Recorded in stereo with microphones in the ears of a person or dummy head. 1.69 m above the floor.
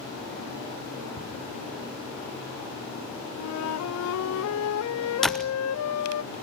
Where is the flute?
85° left, 0.7 m.